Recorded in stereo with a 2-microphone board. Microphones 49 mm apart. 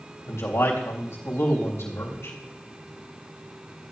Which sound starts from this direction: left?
A man speaking, at 0.3 s.